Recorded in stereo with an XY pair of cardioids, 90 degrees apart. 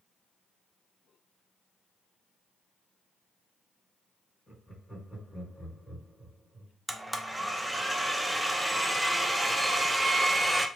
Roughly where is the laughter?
Ahead left.